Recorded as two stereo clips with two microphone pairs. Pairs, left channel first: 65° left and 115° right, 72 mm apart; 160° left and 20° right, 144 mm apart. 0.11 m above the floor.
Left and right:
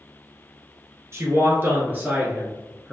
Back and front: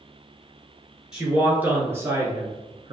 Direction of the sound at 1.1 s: 100° right.